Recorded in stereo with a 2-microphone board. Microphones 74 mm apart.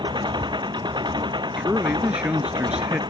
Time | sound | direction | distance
0.0 | an engine running | 85° right | ?
1.6 | a man speaking | 10° right (ahead or behind) | ?